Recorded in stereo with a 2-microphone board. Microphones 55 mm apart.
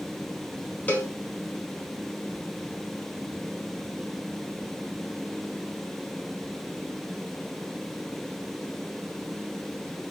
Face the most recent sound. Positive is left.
turn(degrees=30)  # may be behind; listen again after turning